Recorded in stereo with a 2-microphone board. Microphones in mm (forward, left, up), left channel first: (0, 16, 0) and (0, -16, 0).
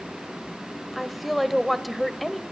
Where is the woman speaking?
Centre (ahead or behind), 1.2 m.